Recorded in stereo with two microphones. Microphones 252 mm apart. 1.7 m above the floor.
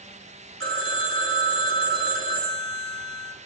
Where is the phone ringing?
55° right (ahead or behind), 2.5 m.